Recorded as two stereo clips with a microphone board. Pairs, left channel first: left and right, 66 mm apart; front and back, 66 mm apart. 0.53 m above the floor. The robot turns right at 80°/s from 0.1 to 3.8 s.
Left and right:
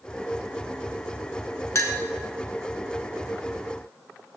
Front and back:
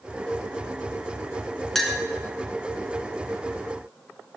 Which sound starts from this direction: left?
A clink, at 1.8 s.